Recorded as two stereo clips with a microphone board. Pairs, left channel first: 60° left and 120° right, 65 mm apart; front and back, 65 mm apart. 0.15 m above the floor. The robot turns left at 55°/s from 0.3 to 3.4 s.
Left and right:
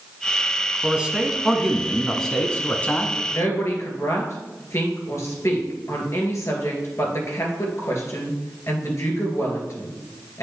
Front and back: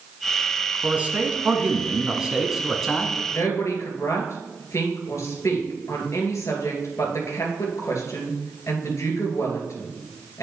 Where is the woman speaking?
35° left, 2.5 m; by 10.4 s 30° left, 2.5 m.